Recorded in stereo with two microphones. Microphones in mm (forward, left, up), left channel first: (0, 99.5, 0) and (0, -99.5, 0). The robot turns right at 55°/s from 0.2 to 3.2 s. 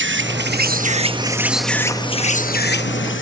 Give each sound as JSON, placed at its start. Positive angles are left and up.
{"t": 0.0, "sound": "an insect", "azimuth_deg": -80}